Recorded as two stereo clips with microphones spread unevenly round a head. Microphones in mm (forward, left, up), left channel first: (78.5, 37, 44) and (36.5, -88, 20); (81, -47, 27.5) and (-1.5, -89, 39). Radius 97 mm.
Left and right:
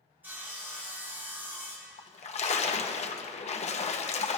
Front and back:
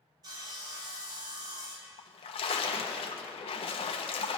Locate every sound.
0.2 s sawing: 165° left, 0.8 m
2.0 s a splash: 30° left, 1.0 m